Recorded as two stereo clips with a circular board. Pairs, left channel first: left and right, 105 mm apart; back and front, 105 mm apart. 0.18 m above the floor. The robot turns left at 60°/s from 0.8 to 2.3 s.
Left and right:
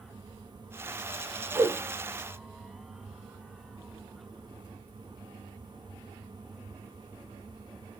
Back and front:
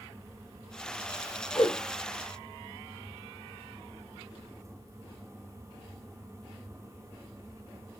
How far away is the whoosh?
About 0.9 m.